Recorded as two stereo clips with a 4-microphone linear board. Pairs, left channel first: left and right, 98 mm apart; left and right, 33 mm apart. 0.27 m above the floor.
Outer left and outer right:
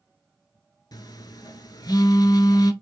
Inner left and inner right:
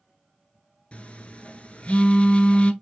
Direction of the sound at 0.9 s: 45° left (ahead or behind).